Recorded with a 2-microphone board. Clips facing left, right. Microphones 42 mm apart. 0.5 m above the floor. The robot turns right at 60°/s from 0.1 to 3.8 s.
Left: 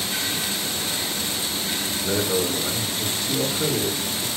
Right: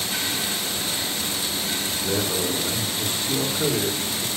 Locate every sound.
2.0 s a man speaking: 155° left, 1.4 m; by 4.3 s 95° right, 1.4 m